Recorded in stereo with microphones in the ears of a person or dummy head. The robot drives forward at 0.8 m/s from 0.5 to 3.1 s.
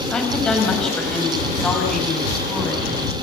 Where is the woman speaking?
5° left (ahead or behind), 7 m.